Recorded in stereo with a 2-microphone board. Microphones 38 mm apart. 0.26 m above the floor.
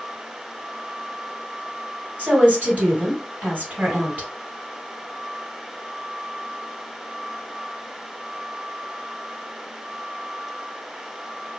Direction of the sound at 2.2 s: 45° right (ahead or behind).